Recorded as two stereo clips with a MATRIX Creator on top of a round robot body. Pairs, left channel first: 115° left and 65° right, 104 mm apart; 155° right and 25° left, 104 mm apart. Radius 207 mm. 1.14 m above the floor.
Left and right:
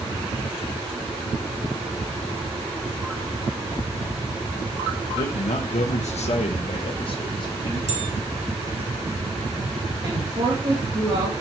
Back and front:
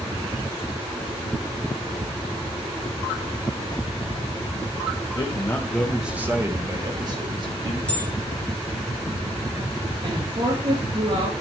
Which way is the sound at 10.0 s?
15° right.